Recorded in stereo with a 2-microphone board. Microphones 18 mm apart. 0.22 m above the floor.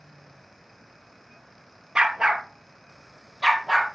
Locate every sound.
1.9 s a dog barking: 45° right (ahead or behind), 1.7 m; by 4.0 s 15° right (ahead or behind), 3 m